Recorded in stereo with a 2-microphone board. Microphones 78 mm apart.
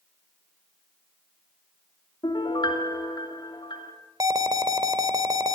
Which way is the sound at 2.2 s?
75° left (ahead or behind).